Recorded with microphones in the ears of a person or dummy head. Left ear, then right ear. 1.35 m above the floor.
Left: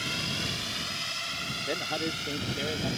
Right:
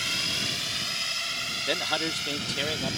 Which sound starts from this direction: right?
A man speaking, at 1.7 s.